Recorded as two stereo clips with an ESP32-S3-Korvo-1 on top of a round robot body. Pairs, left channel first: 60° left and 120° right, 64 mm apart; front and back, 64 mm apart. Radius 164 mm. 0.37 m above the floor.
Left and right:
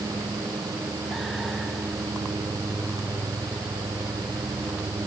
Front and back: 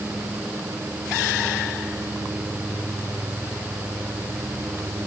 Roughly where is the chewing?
I don't hear chewing.